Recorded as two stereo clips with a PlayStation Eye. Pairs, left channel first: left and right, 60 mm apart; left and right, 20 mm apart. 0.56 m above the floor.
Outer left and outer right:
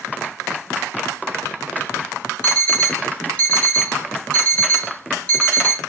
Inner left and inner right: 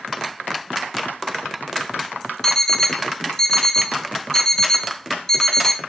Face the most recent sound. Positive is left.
turn(degrees=20)  # may be behind; listen again after turning